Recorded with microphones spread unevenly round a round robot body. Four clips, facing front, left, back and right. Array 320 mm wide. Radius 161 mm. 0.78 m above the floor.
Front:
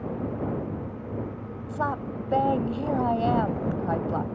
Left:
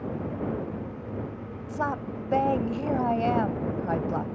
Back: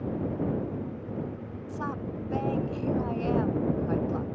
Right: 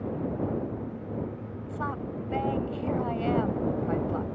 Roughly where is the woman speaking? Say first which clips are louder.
Left 4 dB, front 6 dB; ahead left.